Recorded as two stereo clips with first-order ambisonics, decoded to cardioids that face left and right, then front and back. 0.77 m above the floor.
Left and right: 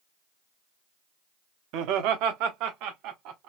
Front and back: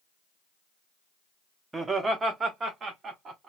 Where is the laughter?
100° right, 0.8 m; by 3.5 s 115° right, 1.9 m.